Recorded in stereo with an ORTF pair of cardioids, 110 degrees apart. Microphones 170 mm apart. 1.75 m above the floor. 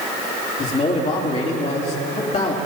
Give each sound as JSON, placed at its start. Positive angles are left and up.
{"t": 0.6, "sound": "a man speaking", "azimuth_deg": 45, "distance_m": 3.0}